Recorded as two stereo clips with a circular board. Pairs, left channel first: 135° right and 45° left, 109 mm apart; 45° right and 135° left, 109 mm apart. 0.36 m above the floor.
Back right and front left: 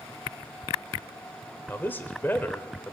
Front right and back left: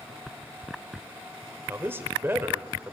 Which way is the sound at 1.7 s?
175° left.